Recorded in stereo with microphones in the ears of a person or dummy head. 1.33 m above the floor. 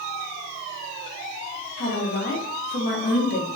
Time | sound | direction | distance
1.8 | a woman speaking | 55° left (ahead or behind) | 1.1 m